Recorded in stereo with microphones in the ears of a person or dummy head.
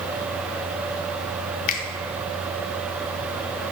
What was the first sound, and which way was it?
A finger snap, 45° left (ahead or behind).